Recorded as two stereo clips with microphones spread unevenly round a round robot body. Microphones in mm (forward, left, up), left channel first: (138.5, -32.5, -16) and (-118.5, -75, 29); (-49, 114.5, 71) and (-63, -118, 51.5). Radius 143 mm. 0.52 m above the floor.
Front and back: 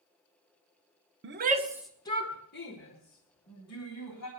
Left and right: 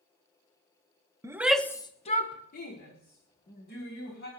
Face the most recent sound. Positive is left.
turn(degrees=35)